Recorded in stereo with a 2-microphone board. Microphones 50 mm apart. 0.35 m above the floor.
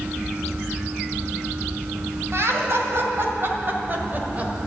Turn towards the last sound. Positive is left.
turn(degrees=-30)  # may be behind; listen again after turning